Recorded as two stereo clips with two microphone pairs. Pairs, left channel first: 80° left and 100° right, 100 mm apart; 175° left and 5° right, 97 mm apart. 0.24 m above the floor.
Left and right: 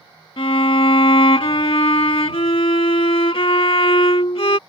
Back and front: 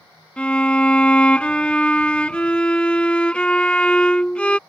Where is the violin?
95° left.